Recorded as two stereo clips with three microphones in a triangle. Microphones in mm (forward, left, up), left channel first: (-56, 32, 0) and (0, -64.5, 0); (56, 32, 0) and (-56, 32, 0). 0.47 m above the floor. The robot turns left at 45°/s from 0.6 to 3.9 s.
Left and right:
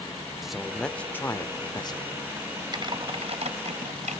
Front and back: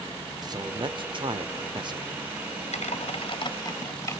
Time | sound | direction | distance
0.4 | a man speaking | 150° right | 1.0 m
2.7 | typing on a keyboard | 10° right | 1.4 m